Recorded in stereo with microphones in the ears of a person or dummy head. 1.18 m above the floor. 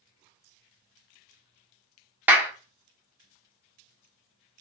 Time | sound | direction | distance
2.3 | a clap | 10° right (ahead or behind) | 0.6 m